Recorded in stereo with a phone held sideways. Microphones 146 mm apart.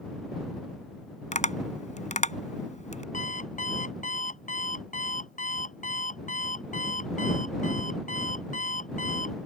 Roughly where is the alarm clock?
Left.